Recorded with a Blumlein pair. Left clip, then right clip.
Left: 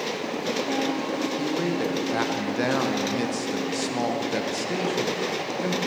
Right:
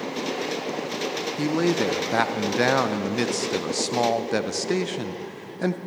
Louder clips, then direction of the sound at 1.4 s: Right 3 dB; 20° right.